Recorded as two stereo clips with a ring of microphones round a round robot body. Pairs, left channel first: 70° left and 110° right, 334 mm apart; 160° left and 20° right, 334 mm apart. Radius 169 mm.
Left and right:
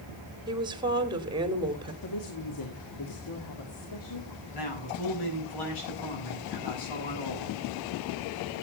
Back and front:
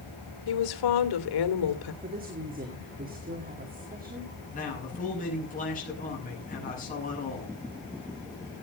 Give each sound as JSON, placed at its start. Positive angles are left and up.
{"t": 0.5, "sound": "a woman speaking", "azimuth_deg": 170, "distance_m": 2.5}
{"t": 2.0, "sound": "a woman speaking", "azimuth_deg": 40, "distance_m": 2.5}
{"t": 4.5, "sound": "a man speaking", "azimuth_deg": 90, "distance_m": 7.0}